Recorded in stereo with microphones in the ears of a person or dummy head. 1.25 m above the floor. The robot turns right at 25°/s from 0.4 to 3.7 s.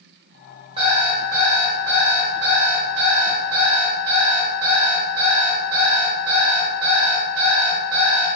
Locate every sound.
0.8 s an alarm clock: 150° right, 0.9 m; by 8.4 s 75° right, 0.9 m